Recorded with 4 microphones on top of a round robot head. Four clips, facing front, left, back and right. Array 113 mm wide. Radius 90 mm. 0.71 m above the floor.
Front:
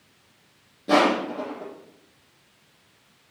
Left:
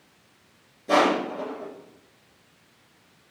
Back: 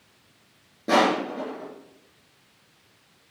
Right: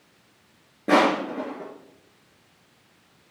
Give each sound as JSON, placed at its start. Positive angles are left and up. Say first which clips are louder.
{"t": 0.9, "sound": "crushing", "louder": "right 1 dB, front 1 dB", "azimuth_deg": -110, "distance_m": 3.0}